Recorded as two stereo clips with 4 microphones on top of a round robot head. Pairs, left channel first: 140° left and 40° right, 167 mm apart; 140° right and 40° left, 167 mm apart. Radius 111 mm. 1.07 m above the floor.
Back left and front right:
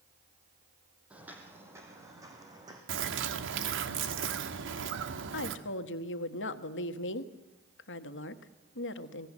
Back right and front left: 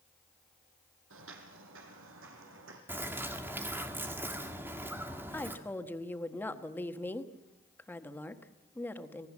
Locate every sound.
1.1 s footsteps: 40° left, 3 m; by 2.8 s 30° left, 4.5 m
2.9 s a bird: 35° right, 1.7 m
5.3 s a woman speaking: 145° left, 1.4 m